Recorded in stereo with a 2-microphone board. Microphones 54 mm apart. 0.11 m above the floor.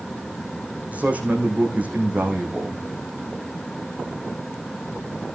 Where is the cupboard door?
I don't hear a cupboard door.